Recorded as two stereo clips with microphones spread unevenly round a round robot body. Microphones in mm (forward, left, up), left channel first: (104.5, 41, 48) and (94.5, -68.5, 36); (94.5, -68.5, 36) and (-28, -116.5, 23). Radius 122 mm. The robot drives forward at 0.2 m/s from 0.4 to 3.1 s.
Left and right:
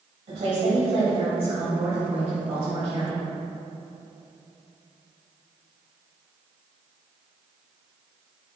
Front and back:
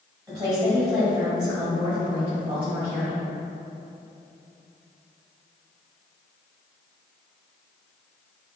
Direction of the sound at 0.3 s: 95° right.